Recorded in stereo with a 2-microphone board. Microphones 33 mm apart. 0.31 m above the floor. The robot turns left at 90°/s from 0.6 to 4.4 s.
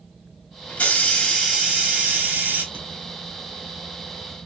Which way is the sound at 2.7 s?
60° right (ahead or behind).